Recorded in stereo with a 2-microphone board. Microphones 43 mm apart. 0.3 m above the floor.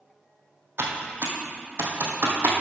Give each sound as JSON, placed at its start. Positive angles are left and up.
{"t": 0.8, "sound": "typing on a keyboard", "side_deg": -60, "distance_m": 2.0}